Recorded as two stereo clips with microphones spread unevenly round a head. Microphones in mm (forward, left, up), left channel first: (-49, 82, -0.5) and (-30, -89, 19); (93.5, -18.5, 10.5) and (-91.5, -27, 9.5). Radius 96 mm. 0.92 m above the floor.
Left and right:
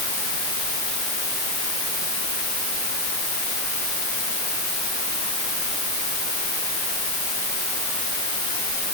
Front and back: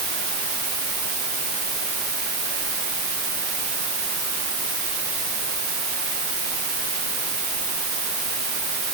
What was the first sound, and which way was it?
Only background noise.